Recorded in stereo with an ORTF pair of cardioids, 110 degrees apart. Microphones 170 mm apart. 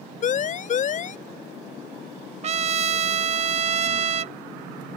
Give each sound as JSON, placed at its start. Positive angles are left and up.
{"t": 0.2, "sound": "a siren", "azimuth_deg": 50}
{"t": 2.4, "sound": "a trumpet", "azimuth_deg": -40}